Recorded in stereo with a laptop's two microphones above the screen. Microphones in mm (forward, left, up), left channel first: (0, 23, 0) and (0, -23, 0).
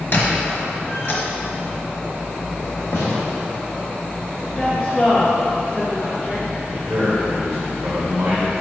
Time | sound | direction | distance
0.1 | a squeak | 55° left (ahead or behind) | 1.4 m
2.9 | a gunshot | 75° left (ahead or behind) | 1.5 m
4.5 | a woman speaking | 15° left (ahead or behind) | 0.7 m
6.7 | a man speaking | 70° right (ahead or behind) | 1.7 m